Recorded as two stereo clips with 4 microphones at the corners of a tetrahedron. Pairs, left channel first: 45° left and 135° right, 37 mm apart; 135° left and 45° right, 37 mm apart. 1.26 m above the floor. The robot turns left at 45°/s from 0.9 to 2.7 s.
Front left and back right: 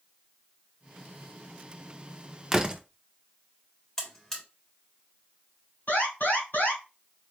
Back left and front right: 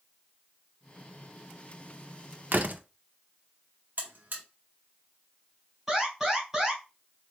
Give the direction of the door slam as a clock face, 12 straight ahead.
2 o'clock.